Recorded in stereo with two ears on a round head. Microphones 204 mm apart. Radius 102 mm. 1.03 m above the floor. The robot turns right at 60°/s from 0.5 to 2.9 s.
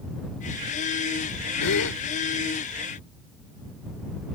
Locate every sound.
1.6 s a gasp: 80° left; by 2.0 s 75° left (ahead or behind)